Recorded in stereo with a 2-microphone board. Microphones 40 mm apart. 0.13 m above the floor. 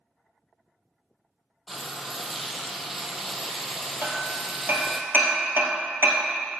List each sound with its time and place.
1.7 s frying: 5° right (ahead or behind), 0.9 m
4.0 s hammering: 60° right (ahead or behind), 1.6 m